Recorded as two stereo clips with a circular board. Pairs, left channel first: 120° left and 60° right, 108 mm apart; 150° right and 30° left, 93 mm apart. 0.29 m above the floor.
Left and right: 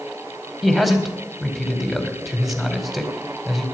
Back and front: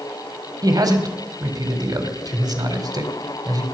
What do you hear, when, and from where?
0.6 s a man speaking: 30° left, 2 m